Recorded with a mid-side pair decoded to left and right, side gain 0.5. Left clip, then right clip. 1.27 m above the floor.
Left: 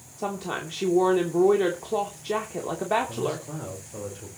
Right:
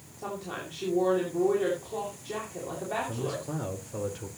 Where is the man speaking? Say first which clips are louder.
Left 4 dB; 20° right, 5 m.